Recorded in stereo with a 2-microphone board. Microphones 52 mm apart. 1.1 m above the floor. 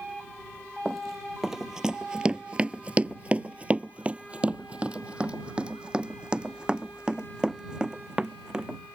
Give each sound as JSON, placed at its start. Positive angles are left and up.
{"t": 0.8, "sound": "running footsteps", "side_deg": -5}